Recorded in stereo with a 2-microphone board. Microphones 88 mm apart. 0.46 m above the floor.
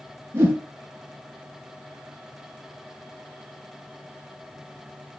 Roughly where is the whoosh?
Right.